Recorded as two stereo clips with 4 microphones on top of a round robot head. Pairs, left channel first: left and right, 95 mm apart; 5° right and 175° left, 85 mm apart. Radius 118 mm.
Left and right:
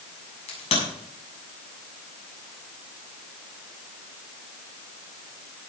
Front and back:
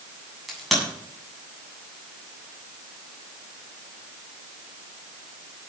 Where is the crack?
85° left, 8 m.